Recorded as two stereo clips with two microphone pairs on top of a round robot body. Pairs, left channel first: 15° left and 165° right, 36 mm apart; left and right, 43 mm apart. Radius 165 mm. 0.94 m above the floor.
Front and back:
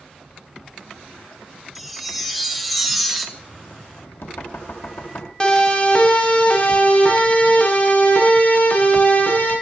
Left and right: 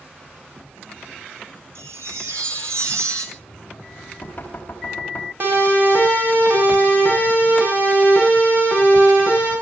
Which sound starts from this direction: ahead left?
Knocking, at 3.4 s.